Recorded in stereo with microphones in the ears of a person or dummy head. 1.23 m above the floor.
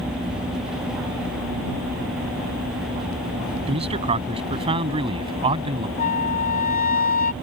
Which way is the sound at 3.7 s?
35° right (ahead or behind).